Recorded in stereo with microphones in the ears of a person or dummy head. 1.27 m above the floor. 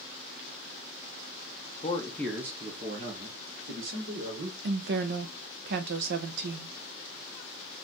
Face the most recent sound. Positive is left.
turn(degrees=-60)  # may be behind; listen again after turning